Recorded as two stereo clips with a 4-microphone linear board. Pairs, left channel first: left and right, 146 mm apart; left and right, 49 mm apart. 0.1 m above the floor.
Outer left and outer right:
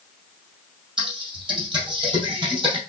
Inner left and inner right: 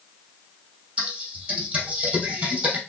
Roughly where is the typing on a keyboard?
Right.